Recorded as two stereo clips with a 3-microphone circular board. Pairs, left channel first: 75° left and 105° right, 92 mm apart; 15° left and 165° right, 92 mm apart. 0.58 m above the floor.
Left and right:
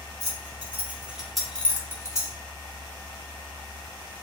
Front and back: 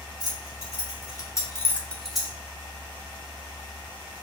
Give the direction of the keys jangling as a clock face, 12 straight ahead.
1 o'clock.